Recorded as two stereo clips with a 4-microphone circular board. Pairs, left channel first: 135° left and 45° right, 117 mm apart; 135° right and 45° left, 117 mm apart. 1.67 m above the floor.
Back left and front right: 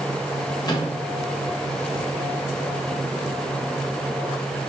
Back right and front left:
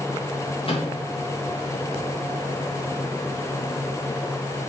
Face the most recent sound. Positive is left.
turn(degrees=-170)